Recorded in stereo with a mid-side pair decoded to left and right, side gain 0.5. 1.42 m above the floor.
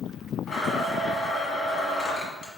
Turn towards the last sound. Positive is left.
turn(degrees=55)